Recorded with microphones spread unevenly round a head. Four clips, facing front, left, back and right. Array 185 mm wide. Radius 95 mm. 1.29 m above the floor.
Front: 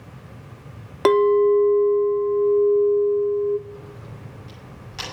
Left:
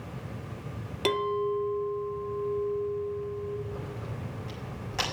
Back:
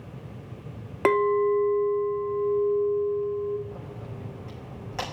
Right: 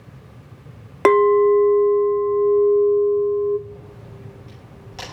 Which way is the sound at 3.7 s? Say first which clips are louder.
Left 2 dB, even; 170° left.